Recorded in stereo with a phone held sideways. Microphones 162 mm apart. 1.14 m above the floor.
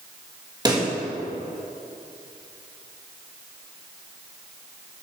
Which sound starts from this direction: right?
A pop, at 0.7 s.